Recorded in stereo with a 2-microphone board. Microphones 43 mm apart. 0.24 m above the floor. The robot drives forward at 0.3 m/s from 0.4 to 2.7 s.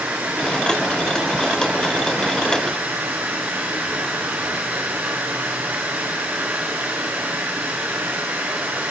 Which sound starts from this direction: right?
Running water, at 0.0 s.